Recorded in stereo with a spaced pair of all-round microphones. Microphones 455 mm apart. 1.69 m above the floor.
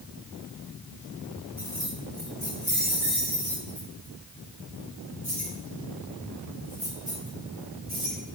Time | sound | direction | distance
1.6 | keys jangling | 55° right (ahead or behind) | 3.5 m